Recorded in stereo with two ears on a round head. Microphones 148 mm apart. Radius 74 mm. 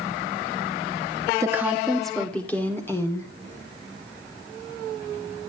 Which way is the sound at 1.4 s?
20° right (ahead or behind).